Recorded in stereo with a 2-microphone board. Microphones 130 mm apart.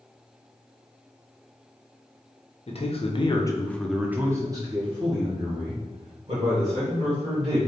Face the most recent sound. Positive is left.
turn(degrees=-50)  # may be behind; listen again after turning